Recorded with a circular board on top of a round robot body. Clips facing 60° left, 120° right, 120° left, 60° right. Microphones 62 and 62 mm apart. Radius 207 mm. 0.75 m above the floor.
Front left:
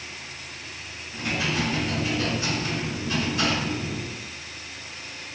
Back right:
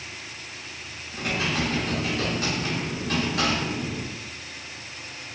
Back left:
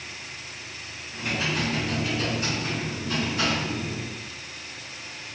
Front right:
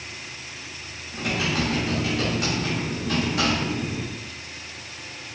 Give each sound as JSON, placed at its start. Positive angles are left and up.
{"t": 1.1, "sound": "typing on a keyboard", "azimuth_deg": -90, "distance_m": 0.9}